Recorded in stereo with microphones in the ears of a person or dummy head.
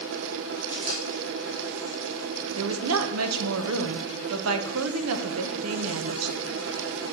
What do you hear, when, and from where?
0.7 s a camera shutter: 65° right (ahead or behind), 2.5 m
2.6 s a woman speaking: 75° right (ahead or behind), 0.8 m